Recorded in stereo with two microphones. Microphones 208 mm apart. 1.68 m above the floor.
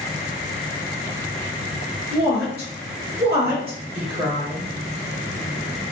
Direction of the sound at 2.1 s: 50° right (ahead or behind).